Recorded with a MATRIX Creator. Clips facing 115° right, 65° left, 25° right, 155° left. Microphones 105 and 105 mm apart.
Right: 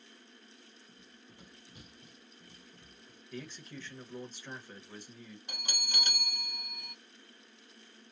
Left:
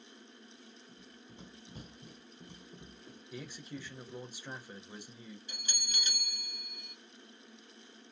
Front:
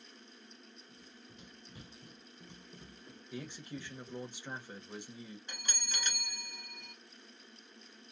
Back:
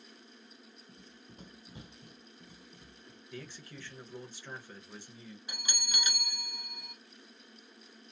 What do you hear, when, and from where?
0.9 s running footsteps: 150° left, 0.7 m; by 4.2 s 20° left, 1.4 m
3.3 s a man speaking: 15° left, 1.0 m
5.5 s a bell: 120° right, 0.5 m